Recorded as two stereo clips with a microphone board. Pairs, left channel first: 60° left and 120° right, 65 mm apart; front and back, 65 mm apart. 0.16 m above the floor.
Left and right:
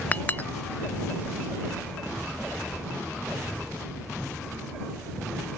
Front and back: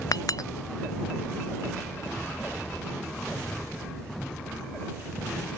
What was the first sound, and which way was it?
A clink, 5° right.